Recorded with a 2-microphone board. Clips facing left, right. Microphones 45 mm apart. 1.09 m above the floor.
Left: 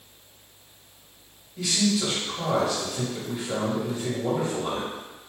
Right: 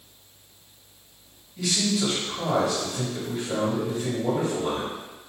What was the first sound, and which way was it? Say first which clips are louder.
A man speaking: left 1 dB; 5° left (ahead or behind).